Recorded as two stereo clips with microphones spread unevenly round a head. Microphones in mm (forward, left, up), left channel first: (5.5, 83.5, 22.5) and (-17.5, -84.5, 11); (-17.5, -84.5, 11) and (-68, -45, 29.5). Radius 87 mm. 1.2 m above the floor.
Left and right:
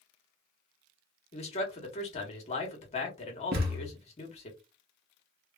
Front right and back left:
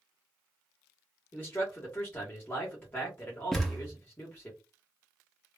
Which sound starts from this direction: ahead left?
A man speaking, at 1.3 s.